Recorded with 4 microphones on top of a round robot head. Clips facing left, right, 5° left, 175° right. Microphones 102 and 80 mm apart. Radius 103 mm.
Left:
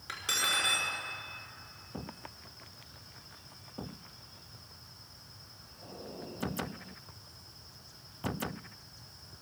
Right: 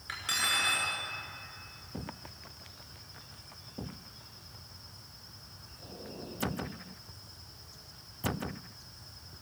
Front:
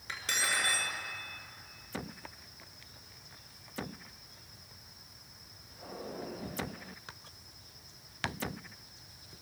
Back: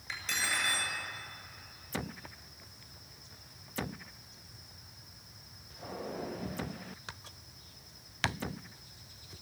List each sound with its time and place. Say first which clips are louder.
0.1 s cutlery clinking: even, front 1 dB; 25° left, 6 m